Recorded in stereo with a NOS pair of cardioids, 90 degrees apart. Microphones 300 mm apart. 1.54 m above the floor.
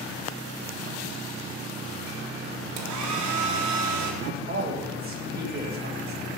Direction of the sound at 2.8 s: 70° right.